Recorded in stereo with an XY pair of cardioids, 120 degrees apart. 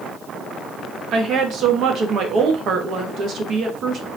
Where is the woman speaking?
55° right, 1.1 m.